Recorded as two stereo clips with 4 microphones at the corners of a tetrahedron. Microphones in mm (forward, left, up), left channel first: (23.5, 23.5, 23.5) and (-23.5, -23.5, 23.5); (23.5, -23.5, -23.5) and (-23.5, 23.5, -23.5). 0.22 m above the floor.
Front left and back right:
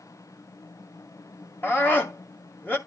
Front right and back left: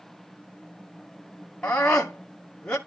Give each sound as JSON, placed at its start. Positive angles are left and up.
{"t": 1.6, "sound": "a scream", "azimuth_deg": 20, "distance_m": 1.9}